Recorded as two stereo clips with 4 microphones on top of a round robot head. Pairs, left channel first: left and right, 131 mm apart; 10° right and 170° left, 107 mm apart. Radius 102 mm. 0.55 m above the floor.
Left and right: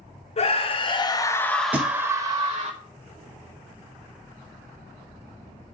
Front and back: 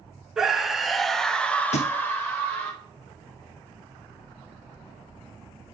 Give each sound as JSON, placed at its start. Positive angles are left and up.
{"t": 0.4, "sound": "a scream", "azimuth_deg": 85, "distance_m": 1.7}
{"t": 1.7, "sound": "a thud", "azimuth_deg": -10, "distance_m": 1.4}